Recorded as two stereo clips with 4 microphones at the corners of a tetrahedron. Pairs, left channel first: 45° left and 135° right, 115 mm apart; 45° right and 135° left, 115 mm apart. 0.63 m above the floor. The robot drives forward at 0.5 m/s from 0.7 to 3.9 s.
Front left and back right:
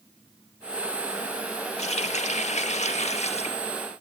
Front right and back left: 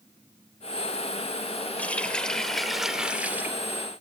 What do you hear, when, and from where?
1.8 s a running tap: 30° left, 1.5 m; by 3.6 s 65° left, 0.9 m